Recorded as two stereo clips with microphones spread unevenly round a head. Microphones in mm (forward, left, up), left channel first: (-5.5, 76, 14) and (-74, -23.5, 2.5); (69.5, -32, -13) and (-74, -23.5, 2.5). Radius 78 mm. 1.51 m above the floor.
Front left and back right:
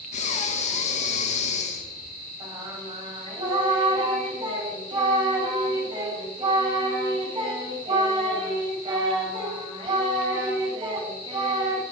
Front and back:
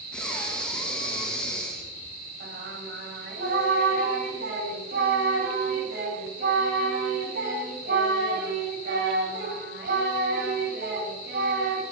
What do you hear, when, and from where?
0.1 s breathing: 85° left, 2.0 m
2.4 s singing: 175° right, 5 m